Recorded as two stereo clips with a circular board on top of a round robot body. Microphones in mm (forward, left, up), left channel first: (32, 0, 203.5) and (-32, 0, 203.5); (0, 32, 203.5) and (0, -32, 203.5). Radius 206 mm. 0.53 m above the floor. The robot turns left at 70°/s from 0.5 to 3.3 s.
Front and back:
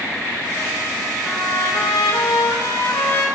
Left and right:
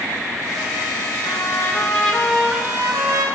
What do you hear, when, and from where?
1.2 s a trumpet: 70° left, 1.4 m; by 3.3 s 70° right, 1.4 m